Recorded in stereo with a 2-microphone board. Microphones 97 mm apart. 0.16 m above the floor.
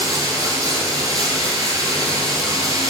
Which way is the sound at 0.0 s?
35° right (ahead or behind).